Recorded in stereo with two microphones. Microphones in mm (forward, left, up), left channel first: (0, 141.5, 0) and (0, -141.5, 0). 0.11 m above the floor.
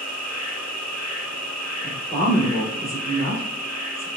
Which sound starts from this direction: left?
An insect, at 0.0 s.